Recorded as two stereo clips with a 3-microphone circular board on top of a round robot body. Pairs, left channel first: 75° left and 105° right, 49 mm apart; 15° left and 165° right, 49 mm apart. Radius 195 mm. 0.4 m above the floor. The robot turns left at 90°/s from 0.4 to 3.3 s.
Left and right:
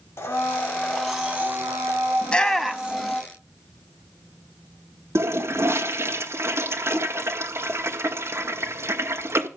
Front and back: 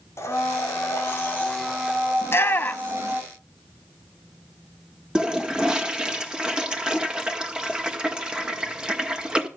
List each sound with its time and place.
0.2 s a blender: 45° left, 4 m; by 3.2 s 150° left, 4 m
2.2 s a shout: 20° left, 1.9 m; by 3.2 s 65° right, 1.9 m
5.2 s a toilet flushing: 95° right, 1.9 m